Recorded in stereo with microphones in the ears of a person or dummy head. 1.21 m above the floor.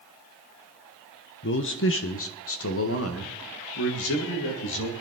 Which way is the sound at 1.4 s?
50° left (ahead or behind).